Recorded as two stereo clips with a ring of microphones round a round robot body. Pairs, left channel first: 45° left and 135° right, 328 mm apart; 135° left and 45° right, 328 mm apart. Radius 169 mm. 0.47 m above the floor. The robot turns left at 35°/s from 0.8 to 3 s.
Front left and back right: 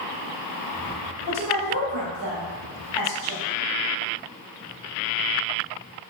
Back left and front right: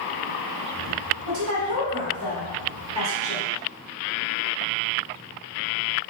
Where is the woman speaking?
65° right, 1.4 m; by 3.4 s 125° right, 1.4 m.